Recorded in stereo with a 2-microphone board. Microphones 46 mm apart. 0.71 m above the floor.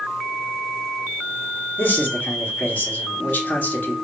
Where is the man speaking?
40° left (ahead or behind), 1.4 m.